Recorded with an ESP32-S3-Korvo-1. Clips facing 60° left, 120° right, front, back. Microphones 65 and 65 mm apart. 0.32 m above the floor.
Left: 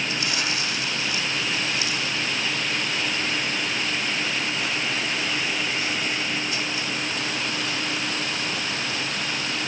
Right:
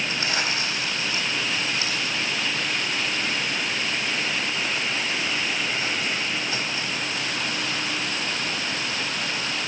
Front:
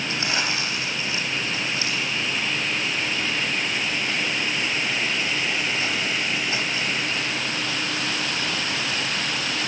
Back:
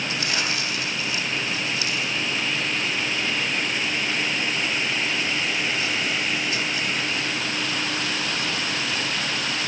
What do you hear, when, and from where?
0.1 s crumpling: 65° right, 3.5 m